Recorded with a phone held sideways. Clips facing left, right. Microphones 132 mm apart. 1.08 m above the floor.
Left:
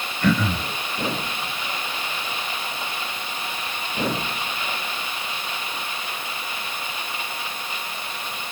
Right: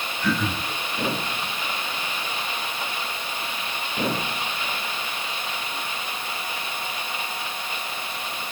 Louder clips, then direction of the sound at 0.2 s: Left 4 dB; 70° left (ahead or behind).